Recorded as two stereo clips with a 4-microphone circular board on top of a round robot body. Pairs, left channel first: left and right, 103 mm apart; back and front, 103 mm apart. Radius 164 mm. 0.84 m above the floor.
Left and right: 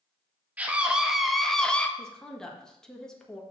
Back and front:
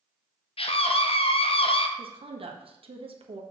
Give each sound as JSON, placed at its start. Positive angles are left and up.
{"t": 0.6, "sound": "a scream", "azimuth_deg": -165, "distance_m": 1.8}
{"t": 2.0, "sound": "a woman speaking", "azimuth_deg": 5, "distance_m": 1.8}